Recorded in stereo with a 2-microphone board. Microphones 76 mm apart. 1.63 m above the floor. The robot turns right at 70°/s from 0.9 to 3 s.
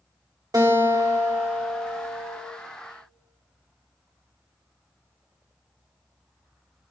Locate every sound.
0.5 s a guitar: 60° right, 1.4 m; by 2.4 s 45° left, 1.4 m